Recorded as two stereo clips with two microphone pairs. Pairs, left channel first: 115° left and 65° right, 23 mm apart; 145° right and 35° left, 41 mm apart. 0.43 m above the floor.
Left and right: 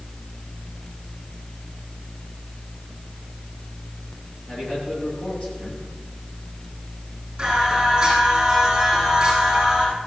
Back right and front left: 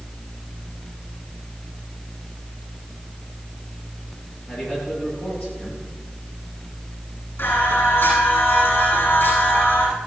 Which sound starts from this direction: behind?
A man speaking, at 4.5 s.